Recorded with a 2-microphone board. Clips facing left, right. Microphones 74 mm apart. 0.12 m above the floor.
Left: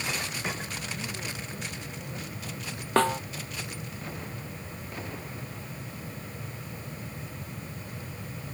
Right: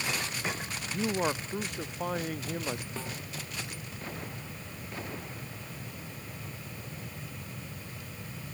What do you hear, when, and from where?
0.9 s a man speaking: 80° right
3.0 s a snare drum: 80° left